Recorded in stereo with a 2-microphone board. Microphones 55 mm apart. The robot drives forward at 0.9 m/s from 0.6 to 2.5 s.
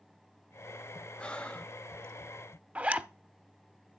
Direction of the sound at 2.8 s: 25° right (ahead or behind).